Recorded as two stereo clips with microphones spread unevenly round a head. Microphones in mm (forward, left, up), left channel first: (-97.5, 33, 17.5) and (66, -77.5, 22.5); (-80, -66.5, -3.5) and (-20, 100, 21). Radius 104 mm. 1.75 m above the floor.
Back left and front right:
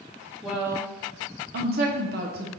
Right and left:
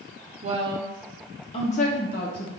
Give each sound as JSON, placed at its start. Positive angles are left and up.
{"t": 0.4, "sound": "a woman speaking", "azimuth_deg": 55, "distance_m": 0.7}